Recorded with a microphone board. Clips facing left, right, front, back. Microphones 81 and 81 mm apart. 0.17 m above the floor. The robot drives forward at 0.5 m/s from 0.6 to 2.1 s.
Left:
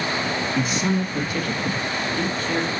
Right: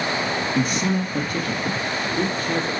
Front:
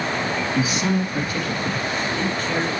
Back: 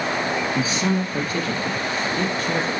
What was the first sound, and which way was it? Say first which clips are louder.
A man speaking: even, front 1 dB; 125° right.